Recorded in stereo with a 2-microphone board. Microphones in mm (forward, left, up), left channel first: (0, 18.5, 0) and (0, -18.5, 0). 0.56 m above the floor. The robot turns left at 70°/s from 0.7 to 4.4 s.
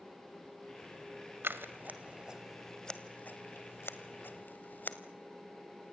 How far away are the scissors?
About 1.8 m.